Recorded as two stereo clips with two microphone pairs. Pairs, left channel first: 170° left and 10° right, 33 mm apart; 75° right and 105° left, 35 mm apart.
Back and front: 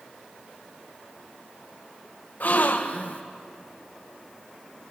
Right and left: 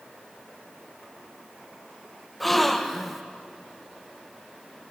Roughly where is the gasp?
Behind.